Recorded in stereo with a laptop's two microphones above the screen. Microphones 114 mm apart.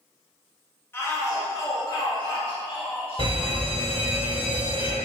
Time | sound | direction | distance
0.9 | a shout | 20° left (ahead or behind) | 1.7 m
3.2 | a fire alarm | 50° right (ahead or behind) | 2.5 m